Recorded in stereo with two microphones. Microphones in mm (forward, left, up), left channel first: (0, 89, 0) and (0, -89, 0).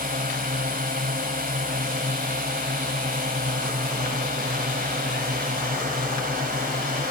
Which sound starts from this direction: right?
A drone, at 0.0 s.